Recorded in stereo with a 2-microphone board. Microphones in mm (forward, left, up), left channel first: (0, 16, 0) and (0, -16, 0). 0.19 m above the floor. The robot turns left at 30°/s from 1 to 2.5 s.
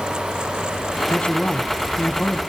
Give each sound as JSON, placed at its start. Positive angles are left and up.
{"t": 1.1, "sound": "a man speaking", "azimuth_deg": 120, "distance_m": 1.2}